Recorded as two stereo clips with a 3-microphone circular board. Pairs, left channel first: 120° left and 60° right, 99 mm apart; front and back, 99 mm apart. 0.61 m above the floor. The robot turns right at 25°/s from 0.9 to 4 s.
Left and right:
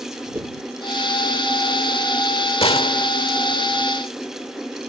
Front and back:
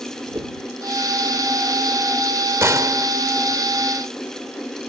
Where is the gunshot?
120° left; by 3.1 s 130° left.